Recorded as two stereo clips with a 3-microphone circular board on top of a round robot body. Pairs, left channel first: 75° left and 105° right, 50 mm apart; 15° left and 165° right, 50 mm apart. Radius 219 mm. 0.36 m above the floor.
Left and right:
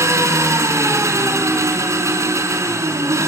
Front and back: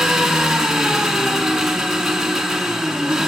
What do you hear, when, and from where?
0.0 s an engine running: 80° right, 5.5 m